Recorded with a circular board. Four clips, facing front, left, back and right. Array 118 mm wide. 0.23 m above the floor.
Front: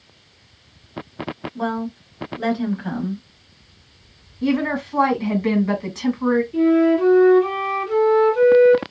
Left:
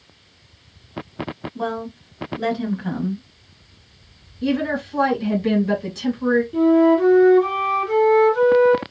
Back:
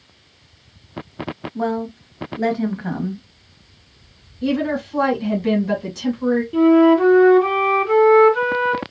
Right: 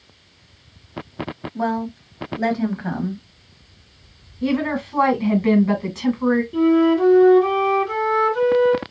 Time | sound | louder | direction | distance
1.6 | a woman speaking | right 4 dB, back 3 dB | 120° right | 1.2 m
4.4 | a woman speaking | even, even | 55° right | 1.3 m
6.5 | a flute | left 2 dB, back 5 dB | 165° right | 1.0 m